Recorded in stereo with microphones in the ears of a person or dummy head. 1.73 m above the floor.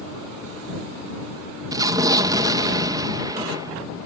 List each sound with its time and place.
1.7 s an explosion: 15° right (ahead or behind)